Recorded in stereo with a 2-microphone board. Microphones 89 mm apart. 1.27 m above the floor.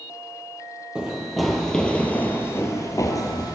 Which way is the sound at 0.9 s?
10° right (ahead or behind).